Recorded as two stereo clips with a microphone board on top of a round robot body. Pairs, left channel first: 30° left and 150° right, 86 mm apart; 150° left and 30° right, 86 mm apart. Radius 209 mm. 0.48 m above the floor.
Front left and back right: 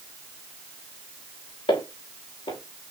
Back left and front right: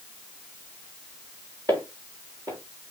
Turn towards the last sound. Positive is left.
turn(degrees=15)